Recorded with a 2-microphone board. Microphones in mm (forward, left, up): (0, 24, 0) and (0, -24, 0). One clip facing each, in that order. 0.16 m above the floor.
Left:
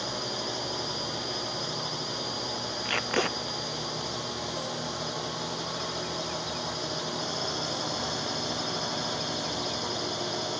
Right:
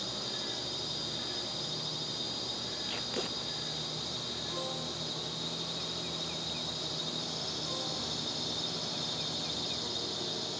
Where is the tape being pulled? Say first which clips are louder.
Left 11 dB; 75° left (ahead or behind).